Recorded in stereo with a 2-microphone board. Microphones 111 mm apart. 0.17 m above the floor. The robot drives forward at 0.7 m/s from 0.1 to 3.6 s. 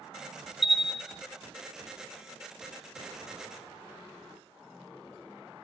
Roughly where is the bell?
Centre.